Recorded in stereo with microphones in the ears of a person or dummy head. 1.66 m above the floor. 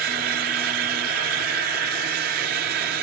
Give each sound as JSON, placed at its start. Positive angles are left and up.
{"t": 0.0, "sound": "a fan", "side_deg": -50, "distance_m": 1.7}